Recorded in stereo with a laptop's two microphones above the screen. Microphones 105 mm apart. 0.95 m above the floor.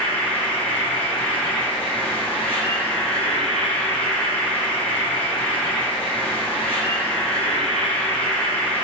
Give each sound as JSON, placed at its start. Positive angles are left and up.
{"t": 0.0, "sound": "an insect", "side_deg": 20, "distance_m": 2.0}